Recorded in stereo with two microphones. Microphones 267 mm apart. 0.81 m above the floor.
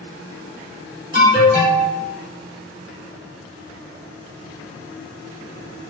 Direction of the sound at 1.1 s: 30° left (ahead or behind).